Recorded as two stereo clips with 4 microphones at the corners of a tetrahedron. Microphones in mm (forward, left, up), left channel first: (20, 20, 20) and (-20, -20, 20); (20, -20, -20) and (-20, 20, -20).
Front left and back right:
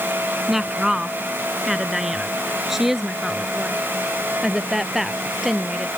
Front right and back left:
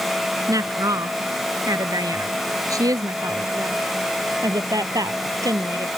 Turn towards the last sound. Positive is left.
turn(degrees=140)